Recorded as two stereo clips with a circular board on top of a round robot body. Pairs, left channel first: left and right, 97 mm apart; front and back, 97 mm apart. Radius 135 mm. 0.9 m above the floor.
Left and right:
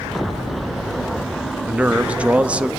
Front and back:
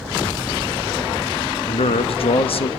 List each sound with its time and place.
1.7 s a man speaking: 15° right, 1.3 m